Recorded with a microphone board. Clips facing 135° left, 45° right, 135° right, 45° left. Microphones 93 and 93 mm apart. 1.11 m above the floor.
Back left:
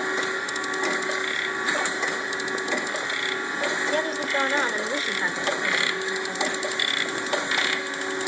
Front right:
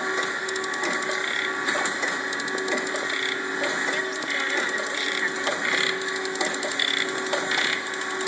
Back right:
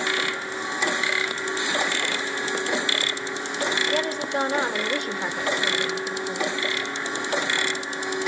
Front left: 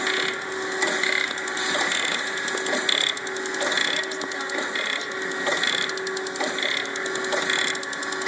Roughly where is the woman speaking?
Behind.